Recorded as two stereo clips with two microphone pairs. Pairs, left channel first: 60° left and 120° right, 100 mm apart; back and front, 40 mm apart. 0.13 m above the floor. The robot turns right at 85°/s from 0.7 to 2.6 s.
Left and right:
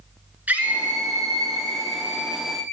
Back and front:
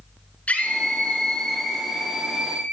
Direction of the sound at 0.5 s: 175° left.